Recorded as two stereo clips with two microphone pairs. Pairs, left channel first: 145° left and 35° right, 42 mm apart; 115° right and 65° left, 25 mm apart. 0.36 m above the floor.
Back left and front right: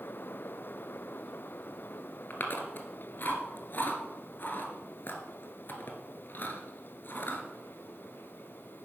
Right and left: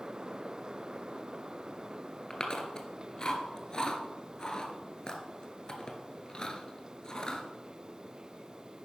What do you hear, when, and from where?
2.3 s chewing: straight behind, 1.6 m